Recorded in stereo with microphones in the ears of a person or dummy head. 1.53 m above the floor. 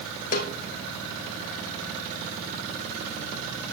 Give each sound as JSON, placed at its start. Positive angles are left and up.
{"t": 0.3, "sound": "a snare drum", "side_deg": 45, "distance_m": 2.5}